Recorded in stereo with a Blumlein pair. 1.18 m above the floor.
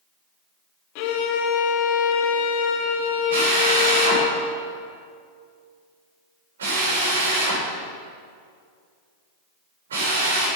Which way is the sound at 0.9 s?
45° left.